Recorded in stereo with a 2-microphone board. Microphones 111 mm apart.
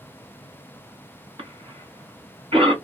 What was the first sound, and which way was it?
A cough, 60° right (ahead or behind).